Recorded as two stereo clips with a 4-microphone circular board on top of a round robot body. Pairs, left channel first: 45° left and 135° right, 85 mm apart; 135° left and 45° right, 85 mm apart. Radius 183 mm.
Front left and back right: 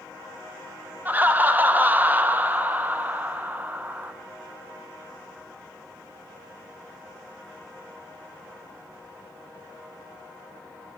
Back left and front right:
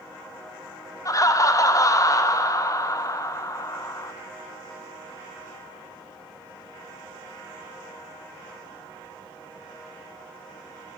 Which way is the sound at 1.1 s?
165° left.